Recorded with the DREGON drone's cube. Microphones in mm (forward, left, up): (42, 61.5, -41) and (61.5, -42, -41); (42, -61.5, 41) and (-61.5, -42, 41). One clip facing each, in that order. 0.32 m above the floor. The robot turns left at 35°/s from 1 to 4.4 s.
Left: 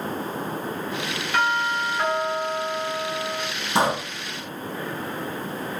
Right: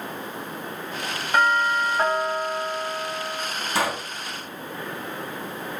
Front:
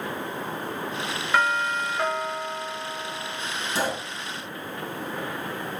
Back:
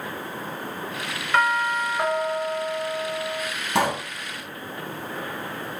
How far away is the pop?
About 2.5 m.